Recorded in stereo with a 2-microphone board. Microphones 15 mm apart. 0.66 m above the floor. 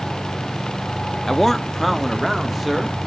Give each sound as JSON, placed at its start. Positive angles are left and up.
{"t": 1.3, "sound": "a man speaking", "side_deg": 25, "distance_m": 0.5}